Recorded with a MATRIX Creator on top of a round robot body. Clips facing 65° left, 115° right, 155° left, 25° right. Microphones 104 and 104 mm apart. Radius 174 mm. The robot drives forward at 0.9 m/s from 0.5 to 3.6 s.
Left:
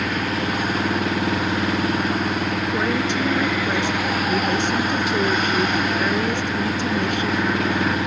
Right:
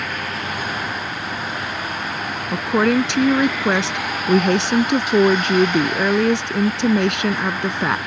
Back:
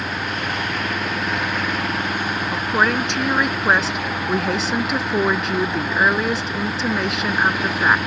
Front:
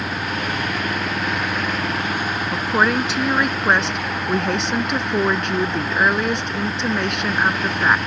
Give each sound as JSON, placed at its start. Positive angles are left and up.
{"t": 0.0, "sound": "an engine running", "azimuth_deg": 65}
{"t": 2.5, "sound": "a woman speaking", "azimuth_deg": -105}